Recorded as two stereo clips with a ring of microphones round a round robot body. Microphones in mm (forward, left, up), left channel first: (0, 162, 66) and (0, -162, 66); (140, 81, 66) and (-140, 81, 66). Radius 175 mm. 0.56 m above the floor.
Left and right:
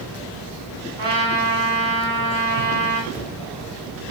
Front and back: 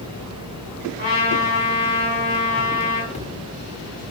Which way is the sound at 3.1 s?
15° right.